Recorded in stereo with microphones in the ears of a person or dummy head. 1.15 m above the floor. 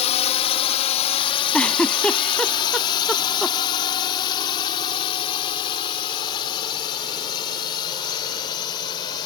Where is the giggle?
Centre (ahead or behind).